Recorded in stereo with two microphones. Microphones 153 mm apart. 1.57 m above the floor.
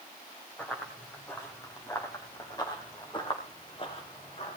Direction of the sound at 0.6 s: 10° left (ahead or behind).